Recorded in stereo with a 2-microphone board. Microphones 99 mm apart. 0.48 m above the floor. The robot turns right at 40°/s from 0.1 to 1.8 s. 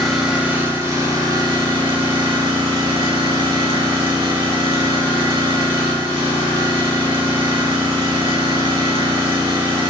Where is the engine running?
Straight behind, 1.0 m; by 9.9 s 110° right, 1.0 m.